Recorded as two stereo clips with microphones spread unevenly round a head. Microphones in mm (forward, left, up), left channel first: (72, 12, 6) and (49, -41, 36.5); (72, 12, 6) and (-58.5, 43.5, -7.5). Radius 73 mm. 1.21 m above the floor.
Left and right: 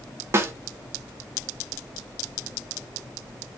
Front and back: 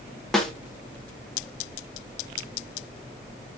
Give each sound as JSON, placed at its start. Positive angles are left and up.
{"t": 0.3, "sound": "a snare drum", "azimuth_deg": -100, "distance_m": 0.5}